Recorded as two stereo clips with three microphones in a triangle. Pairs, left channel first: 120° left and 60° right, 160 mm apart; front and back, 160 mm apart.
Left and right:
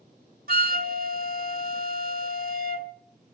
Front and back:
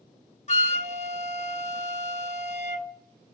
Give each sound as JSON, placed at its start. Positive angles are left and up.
{"t": 0.5, "sound": "a flute", "azimuth_deg": -40, "distance_m": 0.7}